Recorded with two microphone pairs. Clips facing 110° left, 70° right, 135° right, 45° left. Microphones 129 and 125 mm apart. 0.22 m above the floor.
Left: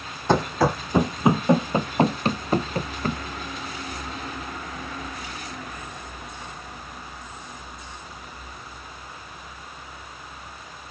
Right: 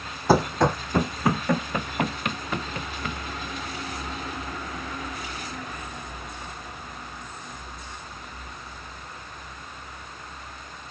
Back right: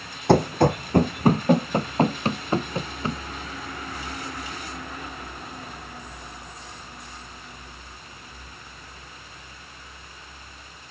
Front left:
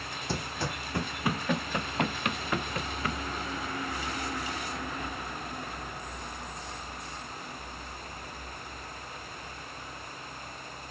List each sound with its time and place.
0.3 s running footsteps: 155° right; by 3.2 s 160° left